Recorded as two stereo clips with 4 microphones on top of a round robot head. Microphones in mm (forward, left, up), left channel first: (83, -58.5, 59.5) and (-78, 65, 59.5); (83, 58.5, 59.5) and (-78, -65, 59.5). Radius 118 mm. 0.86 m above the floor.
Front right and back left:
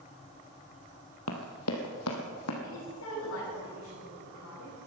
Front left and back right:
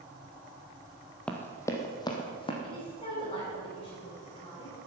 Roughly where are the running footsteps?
Ahead right.